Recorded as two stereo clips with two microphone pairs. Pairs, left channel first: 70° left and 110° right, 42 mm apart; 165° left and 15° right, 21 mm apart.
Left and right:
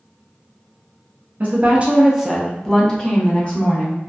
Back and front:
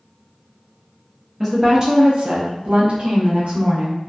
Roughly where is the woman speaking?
Right.